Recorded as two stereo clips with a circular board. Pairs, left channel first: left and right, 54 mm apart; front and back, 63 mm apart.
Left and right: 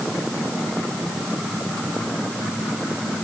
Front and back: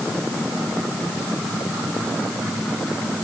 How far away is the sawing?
No sawing in this recording.